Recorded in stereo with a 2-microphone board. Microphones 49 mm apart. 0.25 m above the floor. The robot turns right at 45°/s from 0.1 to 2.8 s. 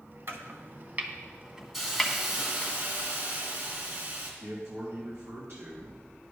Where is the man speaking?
55° right (ahead or behind), 2 m.